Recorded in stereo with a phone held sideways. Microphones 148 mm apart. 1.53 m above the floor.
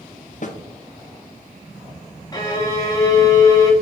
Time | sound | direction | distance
0.4 | a snare drum | 55° left (ahead or behind) | 0.6 m
2.3 | a violin | 25° left (ahead or behind) | 1.0 m